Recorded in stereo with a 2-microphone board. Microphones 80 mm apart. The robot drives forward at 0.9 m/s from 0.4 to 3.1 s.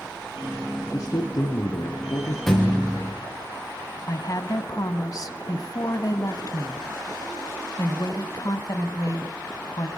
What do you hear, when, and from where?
0.9 s a man speaking: 40° left (ahead or behind), 2.0 m; by 2.4 s 55° left (ahead or behind), 1.6 m
2.5 s a thud: 5° left (ahead or behind), 5 m
4.1 s a woman speaking: 45° left (ahead or behind), 1.7 m